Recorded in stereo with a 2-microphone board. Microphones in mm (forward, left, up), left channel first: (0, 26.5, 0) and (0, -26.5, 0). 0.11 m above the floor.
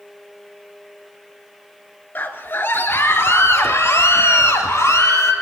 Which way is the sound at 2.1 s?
35° left (ahead or behind).